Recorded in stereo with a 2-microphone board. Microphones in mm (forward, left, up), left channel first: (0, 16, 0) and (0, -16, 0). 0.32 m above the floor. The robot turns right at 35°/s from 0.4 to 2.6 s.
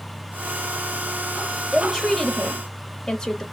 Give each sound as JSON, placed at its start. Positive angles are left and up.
{"t": 1.7, "sound": "a woman speaking", "azimuth_deg": -5, "distance_m": 1.2}